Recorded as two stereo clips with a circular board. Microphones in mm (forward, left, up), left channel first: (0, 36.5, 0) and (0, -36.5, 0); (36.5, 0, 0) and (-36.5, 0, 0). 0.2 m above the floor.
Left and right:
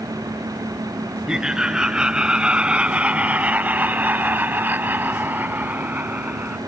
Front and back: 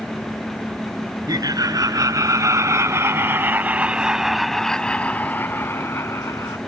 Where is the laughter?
170° right; by 6.6 s 25° right.